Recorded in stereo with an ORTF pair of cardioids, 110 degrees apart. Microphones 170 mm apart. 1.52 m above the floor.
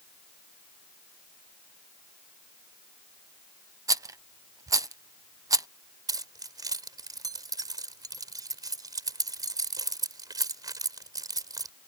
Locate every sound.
3.9 s a rattle: 20° right
6.1 s keys jangling: 20° right